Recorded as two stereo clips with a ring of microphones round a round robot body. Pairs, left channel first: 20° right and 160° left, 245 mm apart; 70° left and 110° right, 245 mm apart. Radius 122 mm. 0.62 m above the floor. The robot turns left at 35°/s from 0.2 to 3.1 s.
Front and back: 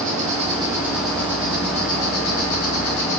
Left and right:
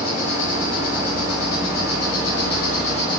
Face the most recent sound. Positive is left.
turn(degrees=-5)